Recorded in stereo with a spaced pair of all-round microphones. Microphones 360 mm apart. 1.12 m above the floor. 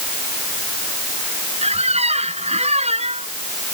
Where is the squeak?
15° right (ahead or behind).